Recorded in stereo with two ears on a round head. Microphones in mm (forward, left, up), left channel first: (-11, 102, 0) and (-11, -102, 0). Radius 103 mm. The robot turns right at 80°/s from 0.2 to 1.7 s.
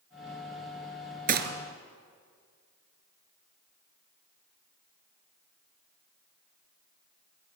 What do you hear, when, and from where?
1.3 s a gunshot: 40° right (ahead or behind), 2 m; by 1.5 s 55° right (ahead or behind), 2 m